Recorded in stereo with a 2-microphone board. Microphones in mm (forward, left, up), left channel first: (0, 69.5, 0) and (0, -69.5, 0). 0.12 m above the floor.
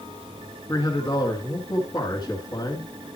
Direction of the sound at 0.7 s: 25° left (ahead or behind).